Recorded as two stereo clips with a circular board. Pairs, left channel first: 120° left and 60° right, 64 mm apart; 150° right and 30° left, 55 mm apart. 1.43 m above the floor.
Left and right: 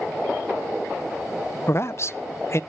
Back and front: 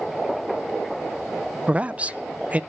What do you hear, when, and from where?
1.7 s a man speaking: 90° left, 0.6 m